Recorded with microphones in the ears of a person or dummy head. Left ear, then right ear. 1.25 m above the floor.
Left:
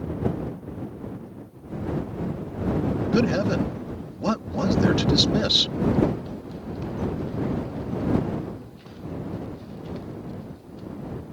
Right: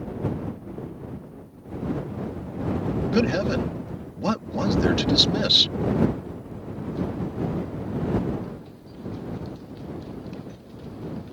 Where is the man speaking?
5° right (ahead or behind).